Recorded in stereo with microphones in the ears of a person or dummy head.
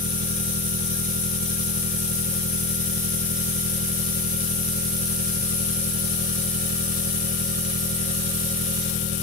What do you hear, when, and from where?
0.0 s an engine running: 50° right (ahead or behind)